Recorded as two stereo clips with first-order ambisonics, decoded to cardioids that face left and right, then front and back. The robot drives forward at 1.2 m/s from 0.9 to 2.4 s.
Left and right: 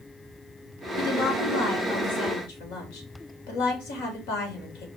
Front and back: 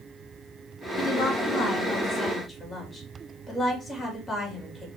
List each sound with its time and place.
1.0 s a woman speaking: 60° left, 4.5 m; by 4.9 s 80° left, 4 m